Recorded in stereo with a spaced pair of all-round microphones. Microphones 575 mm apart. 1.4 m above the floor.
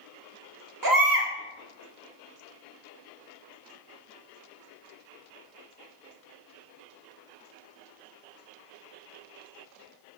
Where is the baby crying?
35° right (ahead or behind), 0.8 m.